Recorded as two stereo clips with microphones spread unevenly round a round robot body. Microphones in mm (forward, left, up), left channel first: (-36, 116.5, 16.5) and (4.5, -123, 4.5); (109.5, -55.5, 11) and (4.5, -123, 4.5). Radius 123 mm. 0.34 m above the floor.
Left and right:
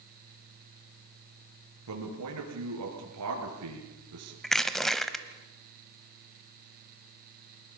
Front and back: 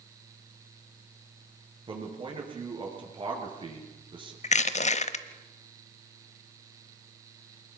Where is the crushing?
10° left, 0.8 m.